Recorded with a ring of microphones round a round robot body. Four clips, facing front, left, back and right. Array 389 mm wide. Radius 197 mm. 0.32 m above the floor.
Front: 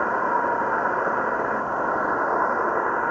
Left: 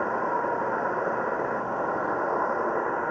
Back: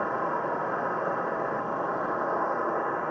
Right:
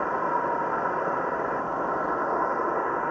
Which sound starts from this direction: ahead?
An insect, at 0.0 s.